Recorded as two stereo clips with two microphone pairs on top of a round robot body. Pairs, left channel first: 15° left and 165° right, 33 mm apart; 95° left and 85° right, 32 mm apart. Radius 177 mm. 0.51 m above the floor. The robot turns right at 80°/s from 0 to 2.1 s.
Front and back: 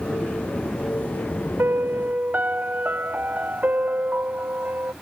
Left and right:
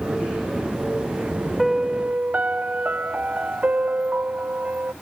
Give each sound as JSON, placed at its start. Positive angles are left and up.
{"t": 1.6, "sound": "a piano", "azimuth_deg": -170}